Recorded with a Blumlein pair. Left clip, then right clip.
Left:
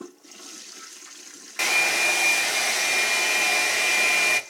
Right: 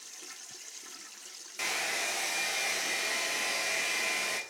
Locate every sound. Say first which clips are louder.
1.6 s a hair dryer: left 11 dB; 25° left, 1.5 m